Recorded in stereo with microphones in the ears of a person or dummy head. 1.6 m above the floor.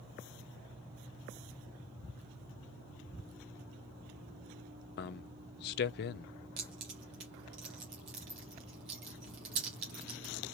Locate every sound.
5.0 s a man speaking: 60° left (ahead or behind), 0.6 m
6.6 s keys jangling: 30° right (ahead or behind), 0.7 m